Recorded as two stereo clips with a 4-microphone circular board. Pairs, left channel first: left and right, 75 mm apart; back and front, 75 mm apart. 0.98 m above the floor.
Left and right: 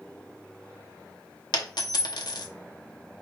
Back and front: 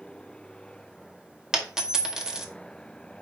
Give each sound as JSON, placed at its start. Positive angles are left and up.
{"t": 1.5, "sound": "a dropped coin", "azimuth_deg": 85, "distance_m": 0.8}